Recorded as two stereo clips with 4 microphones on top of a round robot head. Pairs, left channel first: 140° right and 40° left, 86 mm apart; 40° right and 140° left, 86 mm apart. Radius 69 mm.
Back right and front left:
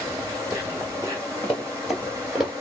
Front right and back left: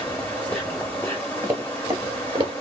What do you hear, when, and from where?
0.0 s an insect: 10° left, 1.1 m
1.4 s running footsteps: 150° left, 1.5 m; by 2.5 s 125° left, 1.7 m